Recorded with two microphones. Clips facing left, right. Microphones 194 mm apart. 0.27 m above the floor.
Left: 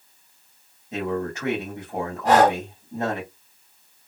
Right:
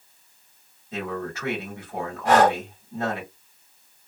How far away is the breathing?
About 1.5 m.